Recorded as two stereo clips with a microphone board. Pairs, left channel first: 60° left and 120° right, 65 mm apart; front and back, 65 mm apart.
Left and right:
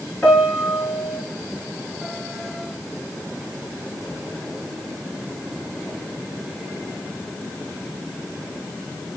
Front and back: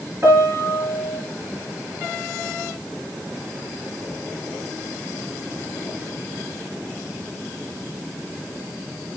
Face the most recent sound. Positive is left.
turn(degrees=130)